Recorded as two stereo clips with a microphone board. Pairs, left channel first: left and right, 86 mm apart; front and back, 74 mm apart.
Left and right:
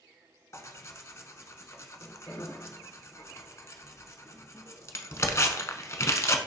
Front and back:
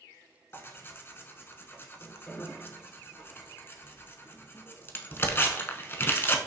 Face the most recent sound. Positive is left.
turn(degrees=45)